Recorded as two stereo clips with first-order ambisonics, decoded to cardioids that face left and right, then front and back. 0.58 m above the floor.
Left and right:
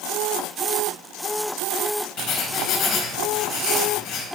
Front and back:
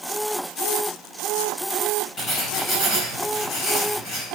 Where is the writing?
55° left, 3.5 m.